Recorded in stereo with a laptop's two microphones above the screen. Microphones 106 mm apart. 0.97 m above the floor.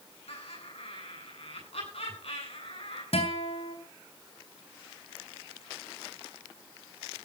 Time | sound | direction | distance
0.3 | laughter | 70° left (ahead or behind) | 9 m
3.1 | a guitar | 70° left (ahead or behind) | 3.5 m